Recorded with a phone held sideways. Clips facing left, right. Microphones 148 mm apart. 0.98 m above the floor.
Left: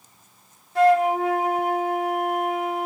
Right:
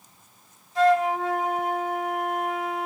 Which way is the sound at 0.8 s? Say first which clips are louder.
Left 3 dB; 60° left (ahead or behind).